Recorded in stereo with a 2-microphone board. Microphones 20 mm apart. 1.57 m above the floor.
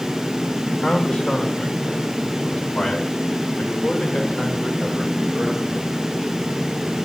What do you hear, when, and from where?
0.8 s a man speaking: 80° left, 2.5 m; by 5.9 s 85° left, 8 m